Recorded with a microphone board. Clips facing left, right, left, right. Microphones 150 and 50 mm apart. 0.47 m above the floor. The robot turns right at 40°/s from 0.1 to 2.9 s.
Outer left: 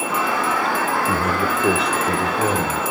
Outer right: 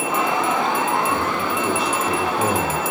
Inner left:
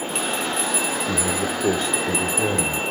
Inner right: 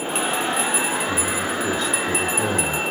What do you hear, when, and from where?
1.1 s a man speaking: 115° left, 1.1 m; by 2.8 s 175° right, 1.1 m